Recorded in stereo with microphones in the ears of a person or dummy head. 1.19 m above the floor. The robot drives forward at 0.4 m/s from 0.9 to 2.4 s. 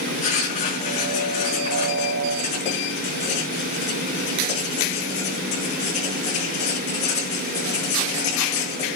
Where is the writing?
40° left (ahead or behind), 5.5 m.